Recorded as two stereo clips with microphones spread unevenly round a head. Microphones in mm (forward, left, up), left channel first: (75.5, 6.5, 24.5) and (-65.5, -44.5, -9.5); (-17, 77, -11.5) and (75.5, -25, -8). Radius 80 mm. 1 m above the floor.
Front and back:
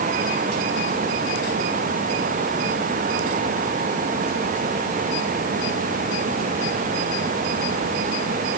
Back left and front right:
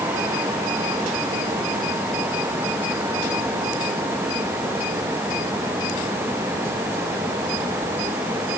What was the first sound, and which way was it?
Only background noise.